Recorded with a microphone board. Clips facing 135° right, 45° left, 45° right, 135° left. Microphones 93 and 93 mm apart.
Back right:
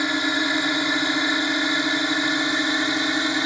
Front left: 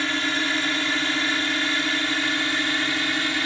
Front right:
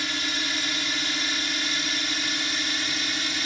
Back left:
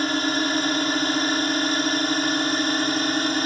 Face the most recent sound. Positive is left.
turn(degrees=160)